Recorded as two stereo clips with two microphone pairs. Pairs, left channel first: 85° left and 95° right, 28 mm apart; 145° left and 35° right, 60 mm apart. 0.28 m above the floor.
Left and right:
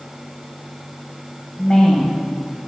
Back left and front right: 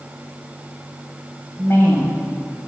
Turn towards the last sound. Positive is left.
turn(degrees=135)